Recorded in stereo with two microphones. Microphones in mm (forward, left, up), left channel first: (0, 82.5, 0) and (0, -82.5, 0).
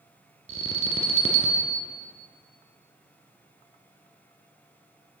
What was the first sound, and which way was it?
An alarm, 45° right (ahead or behind).